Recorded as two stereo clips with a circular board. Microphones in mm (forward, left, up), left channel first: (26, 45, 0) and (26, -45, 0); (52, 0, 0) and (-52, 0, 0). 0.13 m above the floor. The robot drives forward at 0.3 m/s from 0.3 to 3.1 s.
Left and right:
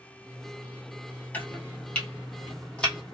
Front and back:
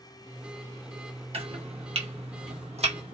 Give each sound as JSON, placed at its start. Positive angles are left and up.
{"t": 1.3, "sound": "chopping", "azimuth_deg": 160, "distance_m": 0.8}